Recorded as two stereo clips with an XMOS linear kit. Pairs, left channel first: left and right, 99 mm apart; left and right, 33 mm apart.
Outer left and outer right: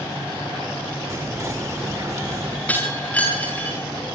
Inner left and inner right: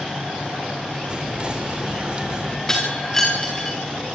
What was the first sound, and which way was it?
Whispering, 30° right (ahead or behind).